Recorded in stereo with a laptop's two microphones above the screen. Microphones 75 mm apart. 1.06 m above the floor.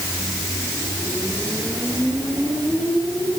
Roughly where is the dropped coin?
No dropped coin in this recording.